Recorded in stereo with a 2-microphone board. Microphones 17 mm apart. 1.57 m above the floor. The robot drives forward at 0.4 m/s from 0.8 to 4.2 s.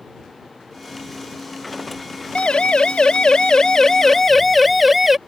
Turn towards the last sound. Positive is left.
turn(degrees=-15)  # may be behind; listen again after turning